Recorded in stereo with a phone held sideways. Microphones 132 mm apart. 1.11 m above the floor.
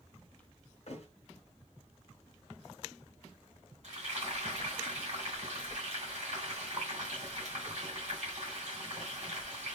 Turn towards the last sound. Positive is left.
turn(degrees=-65)  # may be behind; listen again after turning